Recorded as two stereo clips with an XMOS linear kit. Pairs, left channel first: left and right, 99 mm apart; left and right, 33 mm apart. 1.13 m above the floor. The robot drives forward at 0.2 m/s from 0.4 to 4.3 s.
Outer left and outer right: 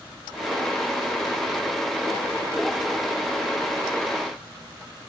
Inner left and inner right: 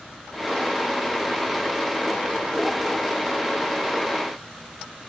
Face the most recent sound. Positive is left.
No sound to turn to.